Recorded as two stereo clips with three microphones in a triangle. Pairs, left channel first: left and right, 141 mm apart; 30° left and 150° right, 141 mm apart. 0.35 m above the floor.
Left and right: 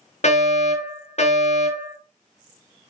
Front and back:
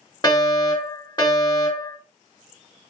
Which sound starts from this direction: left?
A fire alarm, at 0.2 s.